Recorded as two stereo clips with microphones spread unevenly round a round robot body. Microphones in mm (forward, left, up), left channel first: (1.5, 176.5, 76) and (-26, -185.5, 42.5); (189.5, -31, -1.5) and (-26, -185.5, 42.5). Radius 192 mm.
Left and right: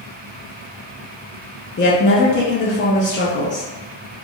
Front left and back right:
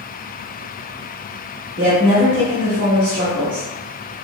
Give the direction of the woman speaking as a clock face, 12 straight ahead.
7 o'clock.